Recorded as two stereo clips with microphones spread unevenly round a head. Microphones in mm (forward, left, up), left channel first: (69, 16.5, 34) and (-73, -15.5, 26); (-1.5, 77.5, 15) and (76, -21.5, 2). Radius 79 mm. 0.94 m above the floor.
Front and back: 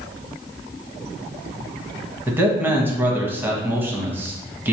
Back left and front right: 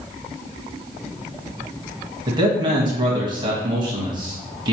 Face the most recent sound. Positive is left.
turn(degrees=-95)